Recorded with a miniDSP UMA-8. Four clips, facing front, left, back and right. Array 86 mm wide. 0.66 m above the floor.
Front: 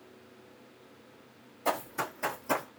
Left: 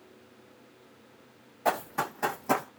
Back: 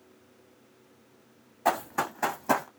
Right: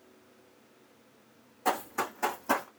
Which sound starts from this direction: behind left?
Running footsteps, at 1.6 s.